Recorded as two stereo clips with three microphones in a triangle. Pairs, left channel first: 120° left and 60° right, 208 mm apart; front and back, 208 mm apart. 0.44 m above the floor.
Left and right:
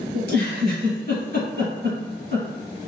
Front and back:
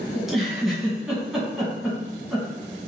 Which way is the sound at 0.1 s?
90° right.